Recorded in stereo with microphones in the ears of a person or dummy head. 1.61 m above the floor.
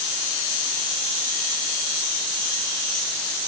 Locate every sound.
Only background noise.